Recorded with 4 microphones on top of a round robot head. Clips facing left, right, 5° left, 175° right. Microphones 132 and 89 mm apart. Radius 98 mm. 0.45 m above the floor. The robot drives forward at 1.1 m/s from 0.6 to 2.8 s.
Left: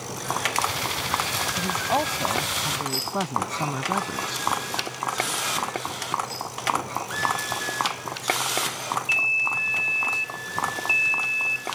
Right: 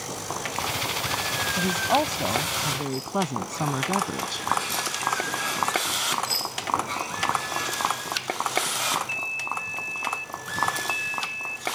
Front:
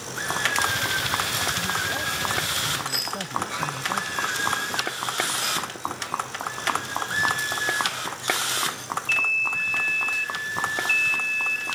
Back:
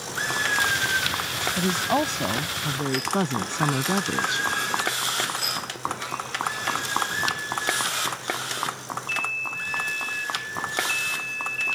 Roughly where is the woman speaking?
Behind.